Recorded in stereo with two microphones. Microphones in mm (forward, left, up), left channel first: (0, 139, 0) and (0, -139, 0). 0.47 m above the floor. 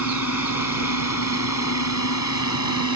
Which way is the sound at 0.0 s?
70° left (ahead or behind).